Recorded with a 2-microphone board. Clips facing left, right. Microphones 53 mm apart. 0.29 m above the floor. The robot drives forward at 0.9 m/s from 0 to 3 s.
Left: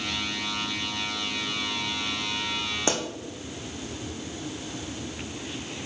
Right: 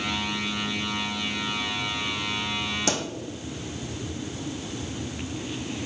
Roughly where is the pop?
Left.